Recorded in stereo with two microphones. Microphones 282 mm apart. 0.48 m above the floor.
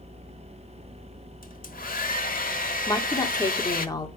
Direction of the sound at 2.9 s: 15° left (ahead or behind).